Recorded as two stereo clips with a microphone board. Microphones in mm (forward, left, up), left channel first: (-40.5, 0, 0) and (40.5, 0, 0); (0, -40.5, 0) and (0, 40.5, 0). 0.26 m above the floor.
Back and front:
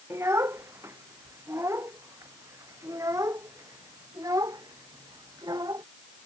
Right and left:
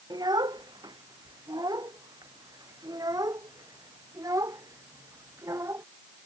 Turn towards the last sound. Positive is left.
turn(degrees=40)